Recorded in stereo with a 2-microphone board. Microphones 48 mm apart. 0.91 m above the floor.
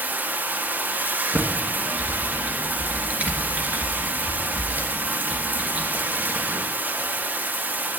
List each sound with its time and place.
0.0 s running water: 35° right (ahead or behind), 0.9 m
1.3 s typing on a keyboard: 30° right (ahead or behind), 2.5 m